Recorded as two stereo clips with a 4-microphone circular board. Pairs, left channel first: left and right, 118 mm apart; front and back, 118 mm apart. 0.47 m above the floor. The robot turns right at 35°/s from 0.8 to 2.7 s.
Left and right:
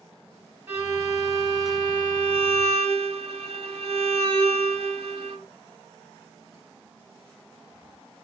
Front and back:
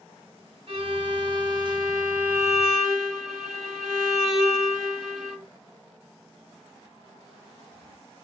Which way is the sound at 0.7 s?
155° right.